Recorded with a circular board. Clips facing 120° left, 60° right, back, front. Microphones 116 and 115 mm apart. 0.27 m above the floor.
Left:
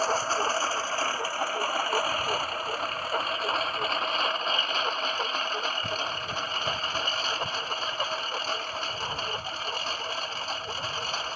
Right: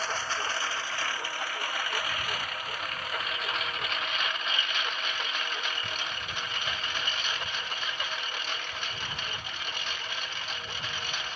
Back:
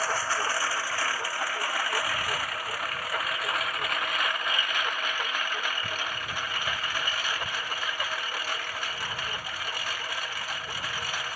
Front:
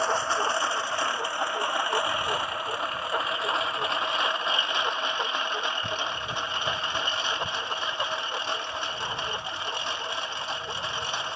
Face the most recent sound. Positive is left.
turn(degrees=65)